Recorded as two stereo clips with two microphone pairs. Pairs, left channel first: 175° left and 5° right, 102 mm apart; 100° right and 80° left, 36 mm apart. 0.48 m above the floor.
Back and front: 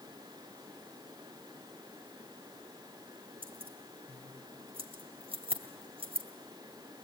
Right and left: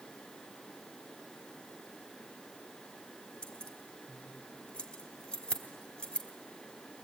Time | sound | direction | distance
3.4 | keys jangling | 25° right | 1.9 m